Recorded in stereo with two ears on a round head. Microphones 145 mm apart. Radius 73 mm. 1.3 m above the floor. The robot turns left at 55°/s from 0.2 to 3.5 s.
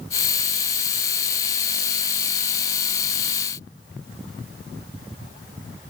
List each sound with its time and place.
Only background noise.